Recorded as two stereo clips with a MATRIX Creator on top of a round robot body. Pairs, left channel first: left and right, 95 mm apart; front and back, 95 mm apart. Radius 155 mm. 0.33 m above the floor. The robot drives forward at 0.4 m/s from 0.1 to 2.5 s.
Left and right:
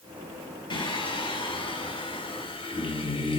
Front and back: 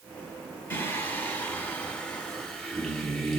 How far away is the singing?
About 2 m.